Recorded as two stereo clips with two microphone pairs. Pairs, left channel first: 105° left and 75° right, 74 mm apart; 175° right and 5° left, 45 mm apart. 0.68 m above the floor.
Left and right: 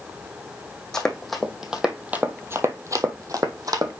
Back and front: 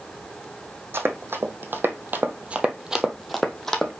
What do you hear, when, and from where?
0.9 s running footsteps: 25° left, 1.4 m; by 3.9 s 100° right, 1.3 m